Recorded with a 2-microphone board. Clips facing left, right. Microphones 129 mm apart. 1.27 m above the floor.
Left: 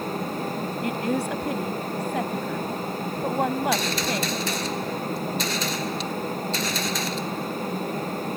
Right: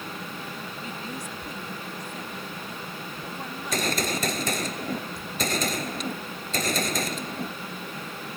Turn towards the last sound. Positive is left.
turn(degrees=-45)  # may be behind; listen again after turning